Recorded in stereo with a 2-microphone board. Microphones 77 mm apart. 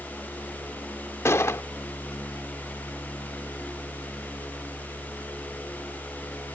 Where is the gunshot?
35° left (ahead or behind).